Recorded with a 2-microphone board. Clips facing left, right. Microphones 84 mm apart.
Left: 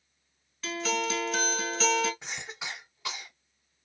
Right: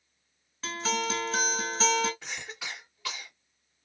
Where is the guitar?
25° right (ahead or behind), 1.8 m.